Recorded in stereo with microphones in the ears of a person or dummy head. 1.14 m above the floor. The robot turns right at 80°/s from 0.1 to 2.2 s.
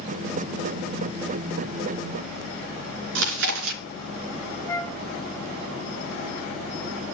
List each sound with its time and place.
3.1 s chewing: 65° right (ahead or behind), 2.5 m
4.7 s a flute: 10° left (ahead or behind), 0.8 m